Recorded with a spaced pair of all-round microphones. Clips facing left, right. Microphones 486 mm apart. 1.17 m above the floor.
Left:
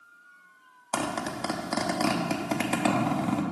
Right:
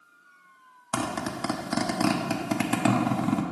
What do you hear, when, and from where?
0.9 s a zipper: 30° right (ahead or behind), 0.8 m